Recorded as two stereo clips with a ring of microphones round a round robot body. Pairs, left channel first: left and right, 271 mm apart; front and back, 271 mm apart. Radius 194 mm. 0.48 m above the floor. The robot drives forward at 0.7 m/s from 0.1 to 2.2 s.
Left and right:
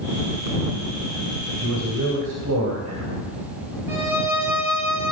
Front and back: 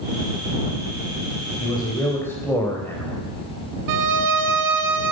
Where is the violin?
175° right, 0.9 m.